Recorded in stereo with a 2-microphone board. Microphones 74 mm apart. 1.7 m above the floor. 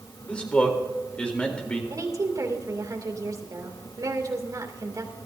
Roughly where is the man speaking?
Centre.